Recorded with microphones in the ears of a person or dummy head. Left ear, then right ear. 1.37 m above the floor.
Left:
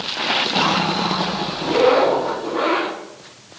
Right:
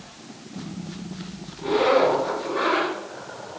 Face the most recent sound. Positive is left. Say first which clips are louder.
# left 3 dB
turn(degrees=15)  # may be behind; listen again after turning